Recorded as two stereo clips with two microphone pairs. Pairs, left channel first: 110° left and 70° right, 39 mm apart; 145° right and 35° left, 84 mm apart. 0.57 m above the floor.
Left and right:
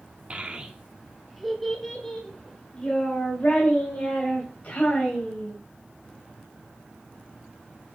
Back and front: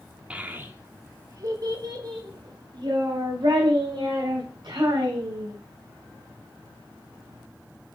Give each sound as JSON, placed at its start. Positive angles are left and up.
{"t": 0.3, "sound": "a child speaking", "azimuth_deg": -35, "distance_m": 0.9}